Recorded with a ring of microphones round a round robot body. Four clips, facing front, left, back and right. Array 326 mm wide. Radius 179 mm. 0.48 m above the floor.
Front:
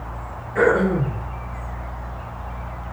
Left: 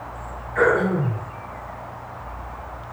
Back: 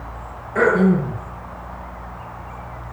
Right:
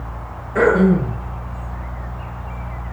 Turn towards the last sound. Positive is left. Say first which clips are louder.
# right 5 dB, back 2 dB
turn(degrees=-115)